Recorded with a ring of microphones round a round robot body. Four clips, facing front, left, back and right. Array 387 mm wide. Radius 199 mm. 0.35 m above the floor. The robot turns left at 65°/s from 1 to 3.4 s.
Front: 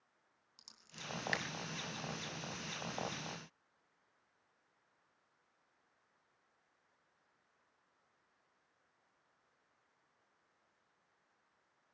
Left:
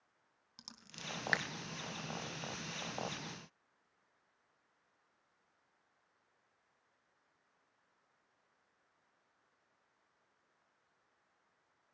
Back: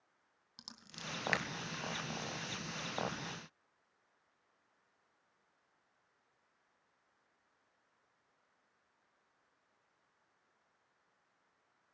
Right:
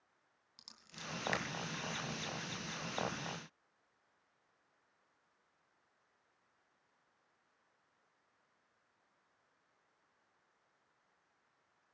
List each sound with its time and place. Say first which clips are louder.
0.6 s scissors: even, back 3 dB; 145° left, 2.5 m; by 1.4 s 115° left, 2.5 m